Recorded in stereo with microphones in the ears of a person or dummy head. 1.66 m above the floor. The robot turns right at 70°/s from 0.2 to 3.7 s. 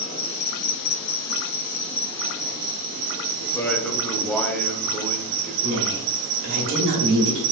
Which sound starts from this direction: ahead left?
An insect, at 0.0 s.